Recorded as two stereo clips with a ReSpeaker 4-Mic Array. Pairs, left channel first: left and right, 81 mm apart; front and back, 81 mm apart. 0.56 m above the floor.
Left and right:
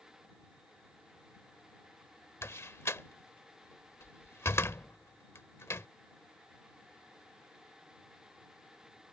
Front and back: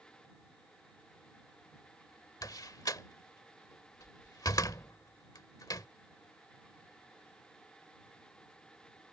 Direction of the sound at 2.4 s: 35° left.